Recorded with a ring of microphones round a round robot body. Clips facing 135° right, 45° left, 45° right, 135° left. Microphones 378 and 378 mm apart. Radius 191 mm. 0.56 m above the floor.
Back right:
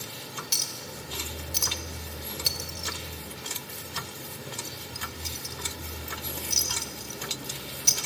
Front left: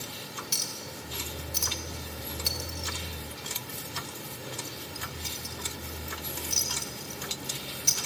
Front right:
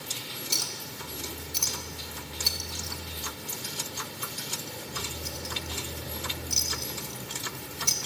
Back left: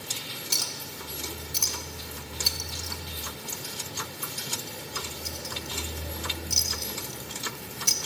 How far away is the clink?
About 1.9 m.